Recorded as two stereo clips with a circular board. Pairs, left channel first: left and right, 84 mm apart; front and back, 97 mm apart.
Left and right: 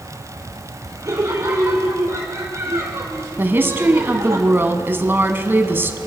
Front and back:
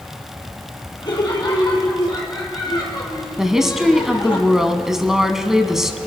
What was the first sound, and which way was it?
Laughter, 35° right.